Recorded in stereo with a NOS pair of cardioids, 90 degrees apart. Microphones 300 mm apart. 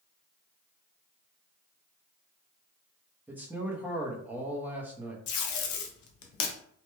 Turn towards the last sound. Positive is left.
turn(degrees=70)